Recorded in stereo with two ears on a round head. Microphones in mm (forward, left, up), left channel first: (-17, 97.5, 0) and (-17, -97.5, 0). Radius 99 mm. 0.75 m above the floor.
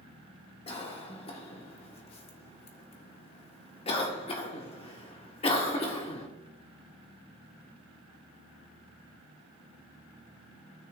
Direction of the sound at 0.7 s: 25° left (ahead or behind).